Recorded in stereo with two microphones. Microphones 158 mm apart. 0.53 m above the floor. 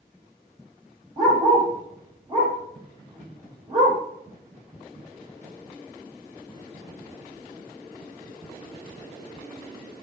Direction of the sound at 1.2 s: 30° right (ahead or behind).